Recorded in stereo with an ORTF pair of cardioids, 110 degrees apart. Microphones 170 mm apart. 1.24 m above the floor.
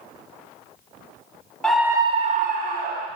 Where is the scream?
5° left, 0.6 m; by 3.1 s 70° right, 1.1 m.